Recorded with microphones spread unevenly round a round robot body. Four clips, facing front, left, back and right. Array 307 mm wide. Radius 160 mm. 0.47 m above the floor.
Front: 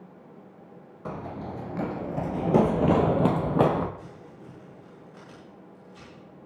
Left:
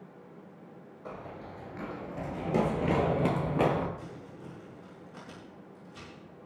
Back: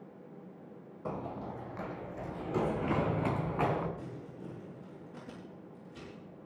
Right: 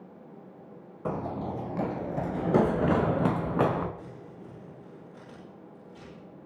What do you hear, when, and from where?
1.1 s running footsteps: 70° right, 1.2 m; by 3.9 s 5° right, 2.5 m
4.0 s crumpling: 155° left, 9 m